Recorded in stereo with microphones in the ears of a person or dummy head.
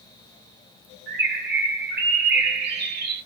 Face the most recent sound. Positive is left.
turn(degrees=-55)  # may be behind; listen again after turning